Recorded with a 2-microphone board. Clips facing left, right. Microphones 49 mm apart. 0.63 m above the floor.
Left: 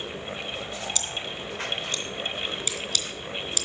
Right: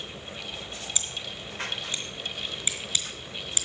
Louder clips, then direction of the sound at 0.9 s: Left 4 dB; 15° right (ahead or behind).